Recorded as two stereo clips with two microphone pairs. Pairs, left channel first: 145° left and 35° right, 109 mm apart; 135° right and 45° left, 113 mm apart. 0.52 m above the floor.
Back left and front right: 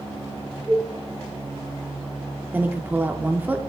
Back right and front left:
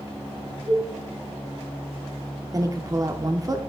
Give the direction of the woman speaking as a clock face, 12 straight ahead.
11 o'clock.